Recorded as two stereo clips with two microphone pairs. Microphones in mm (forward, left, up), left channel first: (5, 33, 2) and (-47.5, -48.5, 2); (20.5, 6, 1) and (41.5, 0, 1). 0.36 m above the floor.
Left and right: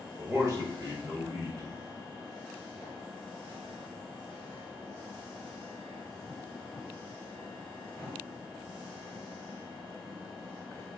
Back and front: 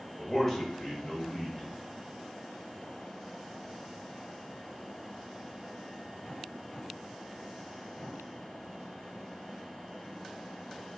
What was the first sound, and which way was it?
A man speaking, 130° right.